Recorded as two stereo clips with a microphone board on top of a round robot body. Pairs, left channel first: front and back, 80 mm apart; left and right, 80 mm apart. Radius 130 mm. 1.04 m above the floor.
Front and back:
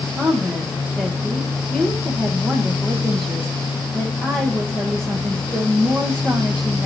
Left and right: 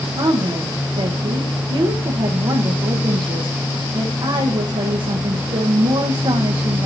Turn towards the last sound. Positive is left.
turn(degrees=-80)